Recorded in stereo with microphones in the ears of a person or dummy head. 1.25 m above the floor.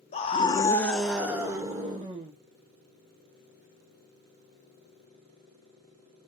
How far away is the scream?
About 0.6 m.